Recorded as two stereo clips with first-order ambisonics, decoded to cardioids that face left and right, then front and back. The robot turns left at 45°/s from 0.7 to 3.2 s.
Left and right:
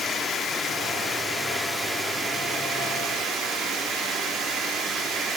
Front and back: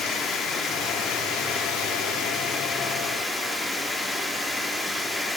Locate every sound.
0.0 s running water: 35° left, 0.9 m; by 5.4 s 75° right, 0.9 m